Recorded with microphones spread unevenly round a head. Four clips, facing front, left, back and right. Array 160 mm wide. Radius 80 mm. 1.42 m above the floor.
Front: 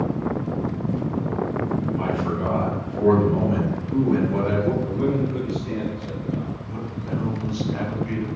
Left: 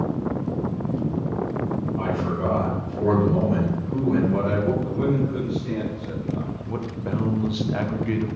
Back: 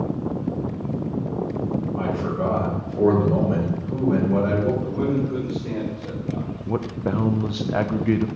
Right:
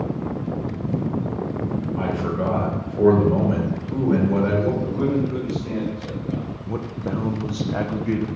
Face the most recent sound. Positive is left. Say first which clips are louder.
# right 3 dB, back 5 dB
turn(degrees=-160)